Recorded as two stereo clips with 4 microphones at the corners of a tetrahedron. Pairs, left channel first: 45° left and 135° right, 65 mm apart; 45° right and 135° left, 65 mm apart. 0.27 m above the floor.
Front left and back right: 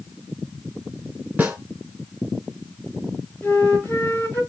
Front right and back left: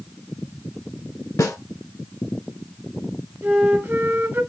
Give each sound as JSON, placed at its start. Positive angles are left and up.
{"t": 1.4, "sound": "a snare drum", "azimuth_deg": -70, "distance_m": 1.0}
{"t": 3.4, "sound": "a flute", "azimuth_deg": 95, "distance_m": 1.4}